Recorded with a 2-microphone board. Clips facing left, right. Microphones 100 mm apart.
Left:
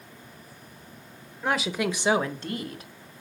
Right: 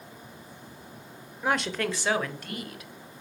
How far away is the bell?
No bell in this recording.